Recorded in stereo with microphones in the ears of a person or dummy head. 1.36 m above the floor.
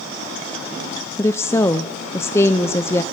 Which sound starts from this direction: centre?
A woman speaking, at 1.2 s.